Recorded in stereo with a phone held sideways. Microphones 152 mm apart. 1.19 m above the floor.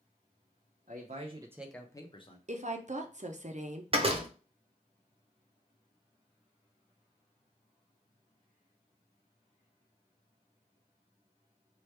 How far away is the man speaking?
About 0.7 m.